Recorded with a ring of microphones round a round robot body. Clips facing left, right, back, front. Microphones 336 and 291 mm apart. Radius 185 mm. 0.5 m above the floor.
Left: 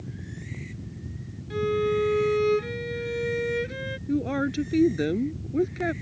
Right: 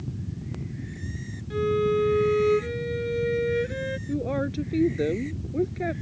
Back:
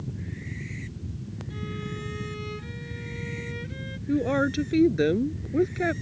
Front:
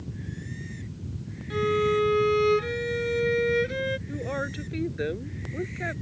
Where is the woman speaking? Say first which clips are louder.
Left 3 dB, back 9 dB; 150° left.